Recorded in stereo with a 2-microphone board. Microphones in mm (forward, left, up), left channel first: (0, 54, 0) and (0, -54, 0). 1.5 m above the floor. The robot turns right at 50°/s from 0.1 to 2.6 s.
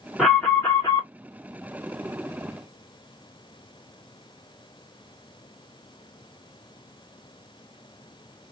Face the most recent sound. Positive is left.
turn(degrees=125)